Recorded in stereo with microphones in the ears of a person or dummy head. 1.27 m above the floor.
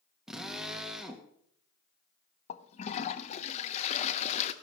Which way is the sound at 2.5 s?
35° left (ahead or behind).